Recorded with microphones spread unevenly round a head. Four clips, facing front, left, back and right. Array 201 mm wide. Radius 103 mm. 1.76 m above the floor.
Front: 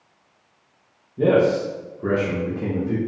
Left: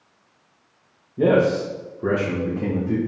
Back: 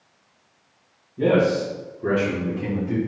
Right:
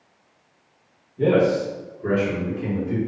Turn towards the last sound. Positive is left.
turn(degrees=60)